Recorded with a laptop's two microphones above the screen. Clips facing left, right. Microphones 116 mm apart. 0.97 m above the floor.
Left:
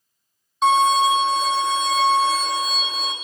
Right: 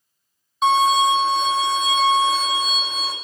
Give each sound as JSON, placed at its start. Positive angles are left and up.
{"t": 0.6, "sound": "a violin", "side_deg": 0, "distance_m": 0.9}